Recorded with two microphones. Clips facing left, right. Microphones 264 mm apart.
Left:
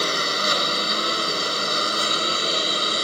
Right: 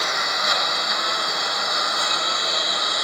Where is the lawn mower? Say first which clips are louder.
Left 4 dB; 35° left (ahead or behind).